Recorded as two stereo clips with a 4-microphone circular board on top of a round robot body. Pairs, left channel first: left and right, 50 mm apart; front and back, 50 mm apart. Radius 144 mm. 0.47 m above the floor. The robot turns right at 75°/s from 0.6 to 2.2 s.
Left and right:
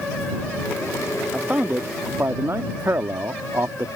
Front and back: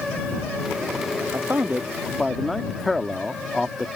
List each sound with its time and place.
1.3 s a man speaking: 155° right; by 3.9 s 90° right